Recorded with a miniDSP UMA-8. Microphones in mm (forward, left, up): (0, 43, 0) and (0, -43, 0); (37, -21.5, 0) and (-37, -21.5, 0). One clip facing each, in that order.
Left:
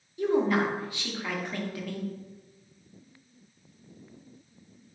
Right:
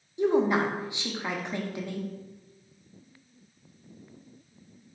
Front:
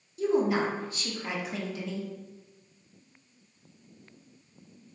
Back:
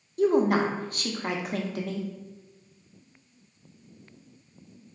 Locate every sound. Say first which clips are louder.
0.2 s a woman speaking: right 1 dB, back 4 dB; 155° right, 0.5 m